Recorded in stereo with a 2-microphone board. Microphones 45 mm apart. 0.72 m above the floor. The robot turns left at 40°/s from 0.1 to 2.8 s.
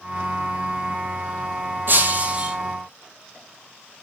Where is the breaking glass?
50° right (ahead or behind), 1.9 m; by 2.5 s 25° right (ahead or behind), 1.9 m.